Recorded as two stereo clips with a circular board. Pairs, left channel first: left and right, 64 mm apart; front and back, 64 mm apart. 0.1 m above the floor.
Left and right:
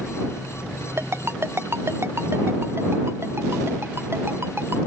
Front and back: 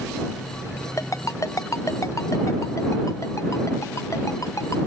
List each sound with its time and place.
1.0 s a ringtone: 40° right